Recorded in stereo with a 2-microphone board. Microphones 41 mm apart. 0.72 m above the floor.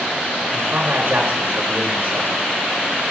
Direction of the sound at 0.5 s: 60° right (ahead or behind).